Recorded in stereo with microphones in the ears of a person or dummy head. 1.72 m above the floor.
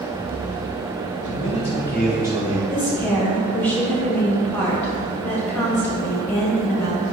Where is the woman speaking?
10° left (ahead or behind), 1.2 m.